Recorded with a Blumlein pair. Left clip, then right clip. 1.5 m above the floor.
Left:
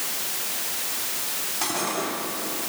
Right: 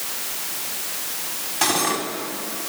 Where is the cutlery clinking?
30° right, 6 m.